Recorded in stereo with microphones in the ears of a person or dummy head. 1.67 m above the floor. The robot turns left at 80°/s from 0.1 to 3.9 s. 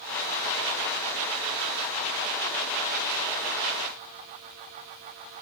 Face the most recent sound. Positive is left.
No sound to turn to.